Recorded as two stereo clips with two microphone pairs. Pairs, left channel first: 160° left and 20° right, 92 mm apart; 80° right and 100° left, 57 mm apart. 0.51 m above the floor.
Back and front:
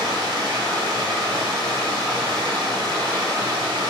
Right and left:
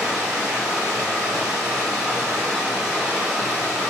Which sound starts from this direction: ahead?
Running water, at 0.0 s.